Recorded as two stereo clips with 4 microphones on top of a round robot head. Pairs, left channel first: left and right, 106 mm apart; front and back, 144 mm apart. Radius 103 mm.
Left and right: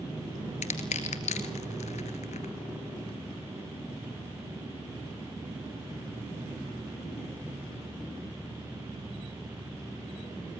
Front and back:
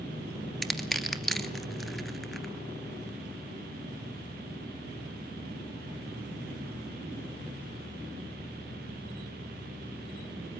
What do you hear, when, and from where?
0.6 s crushing: 90° left, 2.5 m